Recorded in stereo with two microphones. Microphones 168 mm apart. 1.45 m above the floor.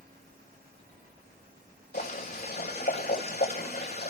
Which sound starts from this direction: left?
Boiling, at 1.9 s.